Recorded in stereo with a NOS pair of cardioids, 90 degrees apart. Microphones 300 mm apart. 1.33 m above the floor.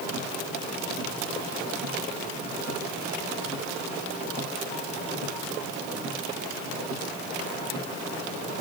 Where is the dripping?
No dripping in this recording.